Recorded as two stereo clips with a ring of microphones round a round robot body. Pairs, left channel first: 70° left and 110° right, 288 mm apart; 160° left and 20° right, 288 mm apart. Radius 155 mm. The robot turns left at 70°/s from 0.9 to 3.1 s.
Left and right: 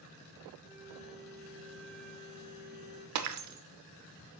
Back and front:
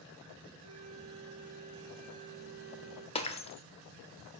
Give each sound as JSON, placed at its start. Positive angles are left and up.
{"t": 0.6, "sound": "a flute", "azimuth_deg": -35, "distance_m": 2.5}
{"t": 3.1, "sound": "breaking glass", "azimuth_deg": -135, "distance_m": 0.8}